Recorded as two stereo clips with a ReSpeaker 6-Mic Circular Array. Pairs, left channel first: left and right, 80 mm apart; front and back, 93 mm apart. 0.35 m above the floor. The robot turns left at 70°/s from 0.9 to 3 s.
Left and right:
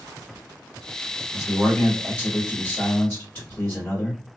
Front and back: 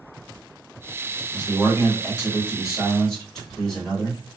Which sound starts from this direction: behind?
A man speaking, at 1.3 s.